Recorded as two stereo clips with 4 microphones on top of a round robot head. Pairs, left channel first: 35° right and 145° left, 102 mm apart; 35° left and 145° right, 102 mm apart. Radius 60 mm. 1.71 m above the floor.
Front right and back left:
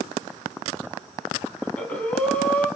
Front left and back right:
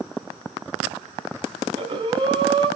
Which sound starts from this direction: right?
Breathing, at 1.6 s.